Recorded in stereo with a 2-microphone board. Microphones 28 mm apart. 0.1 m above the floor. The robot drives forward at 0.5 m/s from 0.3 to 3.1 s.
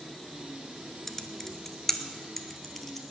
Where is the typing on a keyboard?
15° left (ahead or behind), 0.9 m; by 3.0 s 10° left (ahead or behind), 1.5 m.